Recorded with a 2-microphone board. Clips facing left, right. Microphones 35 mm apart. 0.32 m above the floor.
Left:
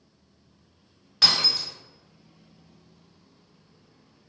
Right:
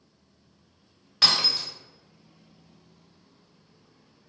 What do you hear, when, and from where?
1.2 s breaking glass: 5° right (ahead or behind), 1.0 m